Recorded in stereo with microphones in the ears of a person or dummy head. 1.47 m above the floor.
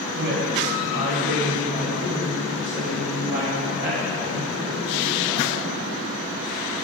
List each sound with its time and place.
0.1 s a woman speaking: 65° right (ahead or behind), 4 m; by 5.7 s 25° right (ahead or behind), 7.5 m